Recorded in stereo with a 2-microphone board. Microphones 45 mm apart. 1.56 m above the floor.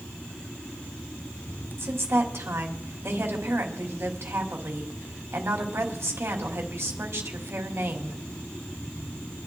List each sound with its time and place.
1.8 s a woman speaking: 80° right, 2.5 m